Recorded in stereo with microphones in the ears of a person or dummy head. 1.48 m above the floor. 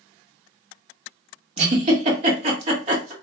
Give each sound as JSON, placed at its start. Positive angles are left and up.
{"t": 1.6, "sound": "a giggle", "side_deg": -40, "distance_m": 1.4}